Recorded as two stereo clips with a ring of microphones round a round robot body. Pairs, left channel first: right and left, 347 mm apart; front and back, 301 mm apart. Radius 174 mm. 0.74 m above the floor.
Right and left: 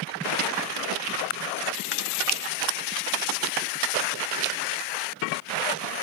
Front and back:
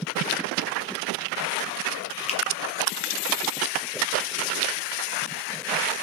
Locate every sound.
2.3 s a finger snap: 65° right, 0.6 m